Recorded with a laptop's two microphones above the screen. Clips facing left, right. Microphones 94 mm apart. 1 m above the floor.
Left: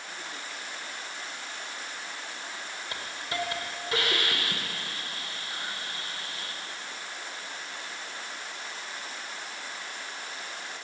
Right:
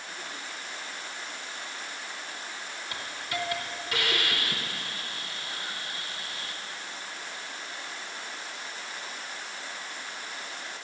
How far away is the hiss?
About 0.9 m.